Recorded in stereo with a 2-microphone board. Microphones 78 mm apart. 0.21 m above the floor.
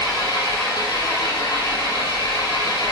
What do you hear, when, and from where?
0.0 s an engine running: 70° left (ahead or behind), 3 m